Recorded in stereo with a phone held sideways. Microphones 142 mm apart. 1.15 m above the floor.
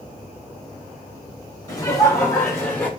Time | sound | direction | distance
1.7 | laughter | 25° left (ahead or behind) | 5.5 m